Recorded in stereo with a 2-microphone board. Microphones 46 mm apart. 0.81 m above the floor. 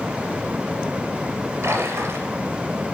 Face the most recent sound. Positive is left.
turn(degrees=-70)  # may be behind; listen again after turning